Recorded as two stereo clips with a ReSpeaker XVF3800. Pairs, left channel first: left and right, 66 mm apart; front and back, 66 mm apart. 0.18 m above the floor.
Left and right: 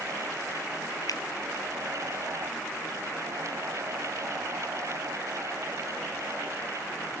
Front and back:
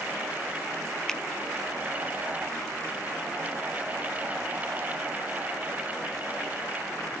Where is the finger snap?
80° left.